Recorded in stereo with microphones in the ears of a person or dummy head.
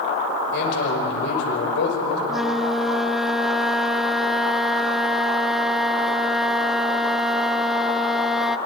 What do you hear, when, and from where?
0.5 s a man speaking: 70° left (ahead or behind), 6 m
2.3 s a flute: centre (ahead or behind), 0.6 m